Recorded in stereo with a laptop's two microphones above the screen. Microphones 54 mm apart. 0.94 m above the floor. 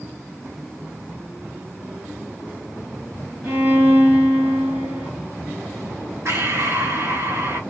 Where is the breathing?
60° right (ahead or behind), 1.7 m.